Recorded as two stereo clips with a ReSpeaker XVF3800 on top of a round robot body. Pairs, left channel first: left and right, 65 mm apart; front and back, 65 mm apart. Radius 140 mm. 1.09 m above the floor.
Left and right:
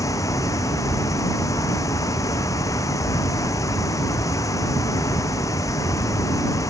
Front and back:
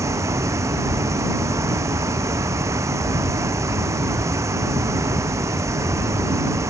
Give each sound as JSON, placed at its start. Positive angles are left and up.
{"t": 0.0, "sound": "running water", "azimuth_deg": 135}